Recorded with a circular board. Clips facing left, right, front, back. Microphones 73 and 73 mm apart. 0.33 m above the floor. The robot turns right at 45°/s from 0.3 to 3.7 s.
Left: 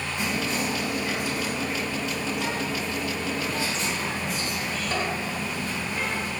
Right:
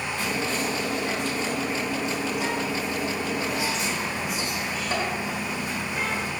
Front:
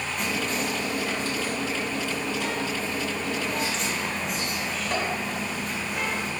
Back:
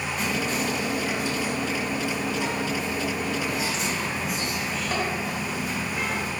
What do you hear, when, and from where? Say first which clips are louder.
0.2 s whispering: left 1 dB, back 1 dB; 100° left, 1.0 m; by 6.3 s 110° right, 1.0 m